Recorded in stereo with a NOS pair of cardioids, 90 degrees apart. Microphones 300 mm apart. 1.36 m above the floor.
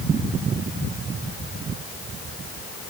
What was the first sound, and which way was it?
Only background noise.